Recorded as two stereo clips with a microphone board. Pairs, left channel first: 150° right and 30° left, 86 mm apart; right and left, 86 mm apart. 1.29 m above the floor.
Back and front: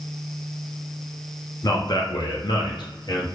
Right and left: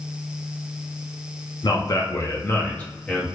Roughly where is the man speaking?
Behind right.